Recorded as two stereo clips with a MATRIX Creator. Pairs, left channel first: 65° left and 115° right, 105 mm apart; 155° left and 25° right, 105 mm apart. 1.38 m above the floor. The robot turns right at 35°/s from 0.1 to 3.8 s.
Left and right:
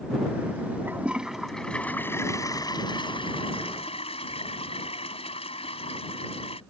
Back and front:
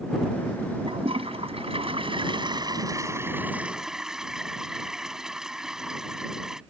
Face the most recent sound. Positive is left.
turn(degrees=60)